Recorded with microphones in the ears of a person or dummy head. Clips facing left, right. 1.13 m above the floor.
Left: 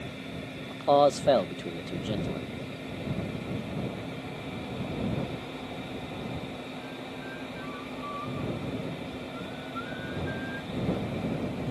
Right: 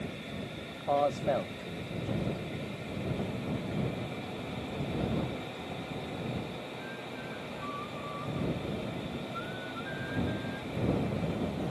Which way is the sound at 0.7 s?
70° left (ahead or behind).